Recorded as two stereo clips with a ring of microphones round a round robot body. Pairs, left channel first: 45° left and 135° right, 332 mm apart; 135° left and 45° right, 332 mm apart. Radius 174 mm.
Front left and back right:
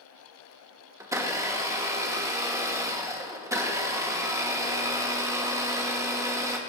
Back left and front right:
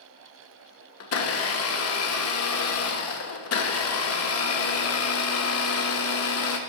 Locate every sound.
1.0 s a blender: 145° left, 1.2 m